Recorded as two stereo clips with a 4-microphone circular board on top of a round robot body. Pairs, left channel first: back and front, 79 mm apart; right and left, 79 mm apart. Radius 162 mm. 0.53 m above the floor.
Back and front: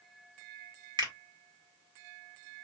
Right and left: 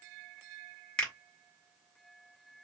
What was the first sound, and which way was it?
A finger snap, 10° right.